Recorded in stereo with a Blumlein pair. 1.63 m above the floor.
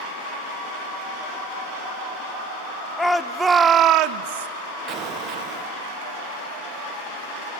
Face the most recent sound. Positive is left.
turn(degrees=-35)